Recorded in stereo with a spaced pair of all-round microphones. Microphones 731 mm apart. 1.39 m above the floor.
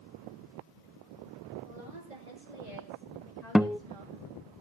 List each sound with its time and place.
1.6 s a woman speaking: 75° right (ahead or behind), 9 m; by 4.5 s 50° right (ahead or behind), 6.5 m
3.5 s a guitar: centre (ahead or behind), 0.5 m